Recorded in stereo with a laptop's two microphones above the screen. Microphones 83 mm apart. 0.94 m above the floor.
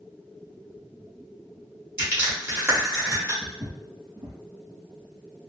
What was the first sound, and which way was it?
Crushing, 30° right (ahead or behind).